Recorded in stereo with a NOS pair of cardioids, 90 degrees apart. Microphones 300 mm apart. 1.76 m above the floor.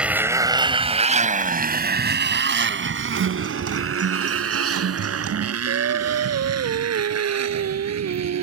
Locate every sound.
0.0 s a motorcycle: 5° right; by 8.4 s 60° right
3.2 s a guitar: 50° right
5.7 s singing: 55° right